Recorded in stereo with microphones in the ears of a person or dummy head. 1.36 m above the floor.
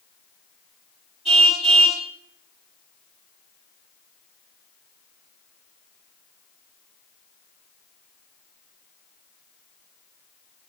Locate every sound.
1.2 s a car horn: 30° right (ahead or behind), 5.5 m